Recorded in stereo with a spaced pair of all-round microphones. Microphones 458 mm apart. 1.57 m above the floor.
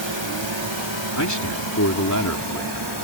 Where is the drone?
70° right (ahead or behind); by 3.0 s 60° right (ahead or behind).